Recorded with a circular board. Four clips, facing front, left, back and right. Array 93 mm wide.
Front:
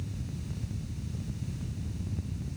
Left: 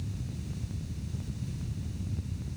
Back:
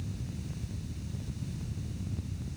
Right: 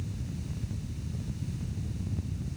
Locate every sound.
Only background noise.